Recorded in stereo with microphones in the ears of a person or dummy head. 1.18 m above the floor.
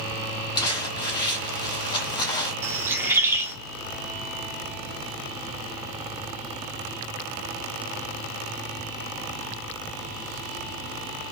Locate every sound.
0.6 s crumpling: 25° left (ahead or behind), 1.5 m
2.6 s a bird: 10° right (ahead or behind), 1.1 m